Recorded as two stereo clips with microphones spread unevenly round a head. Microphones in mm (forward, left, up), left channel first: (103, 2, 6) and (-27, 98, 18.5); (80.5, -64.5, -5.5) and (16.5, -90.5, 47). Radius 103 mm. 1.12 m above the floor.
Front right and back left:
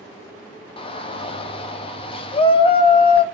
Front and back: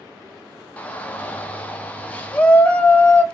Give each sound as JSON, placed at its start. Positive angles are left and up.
{"t": 0.8, "sound": "a shout", "azimuth_deg": 5, "distance_m": 0.6}